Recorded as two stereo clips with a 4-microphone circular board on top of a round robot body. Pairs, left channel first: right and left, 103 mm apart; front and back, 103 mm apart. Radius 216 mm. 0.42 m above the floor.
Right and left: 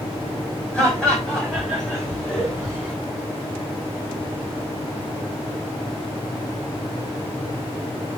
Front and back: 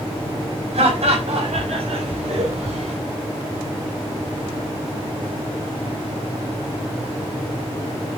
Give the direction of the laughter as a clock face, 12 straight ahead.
6 o'clock.